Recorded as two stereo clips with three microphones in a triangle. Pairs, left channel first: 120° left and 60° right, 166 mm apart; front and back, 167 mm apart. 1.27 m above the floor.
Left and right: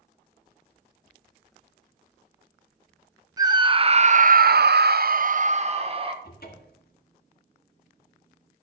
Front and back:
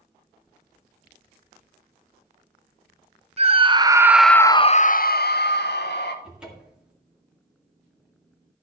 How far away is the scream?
About 0.8 m.